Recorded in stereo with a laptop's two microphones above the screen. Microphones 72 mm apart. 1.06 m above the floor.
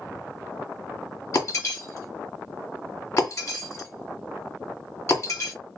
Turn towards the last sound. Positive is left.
turn(degrees=40)  # may be behind; listen again after turning